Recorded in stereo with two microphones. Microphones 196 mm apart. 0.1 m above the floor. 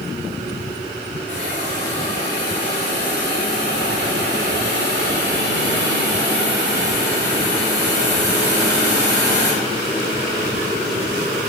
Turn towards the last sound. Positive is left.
turn(degrees=-65)  # may be behind; listen again after turning